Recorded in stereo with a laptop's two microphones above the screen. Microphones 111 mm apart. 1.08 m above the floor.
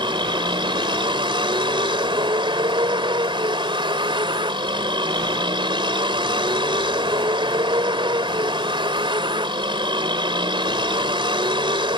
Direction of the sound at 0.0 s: 50° right (ahead or behind).